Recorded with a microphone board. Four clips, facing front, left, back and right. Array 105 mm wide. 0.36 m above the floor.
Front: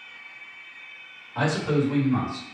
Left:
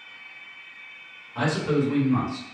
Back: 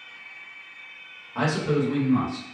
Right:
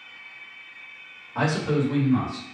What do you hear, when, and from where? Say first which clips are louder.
1.4 s a man speaking: even, even; 130° right, 1.2 m; by 2.5 s 65° left, 1.6 m